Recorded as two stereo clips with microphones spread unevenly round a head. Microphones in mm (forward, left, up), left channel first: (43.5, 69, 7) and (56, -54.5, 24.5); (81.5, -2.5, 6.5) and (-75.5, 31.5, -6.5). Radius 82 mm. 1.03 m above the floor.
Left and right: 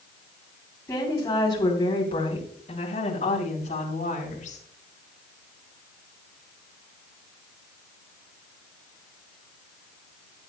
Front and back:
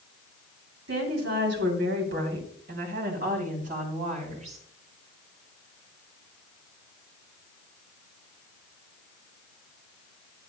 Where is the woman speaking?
170° left, 3 m; by 4.6 s 125° left, 4 m.